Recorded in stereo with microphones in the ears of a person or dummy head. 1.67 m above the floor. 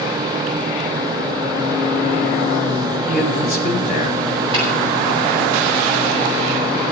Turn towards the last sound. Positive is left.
turn(degrees=-30)  # may be behind; listen again after turning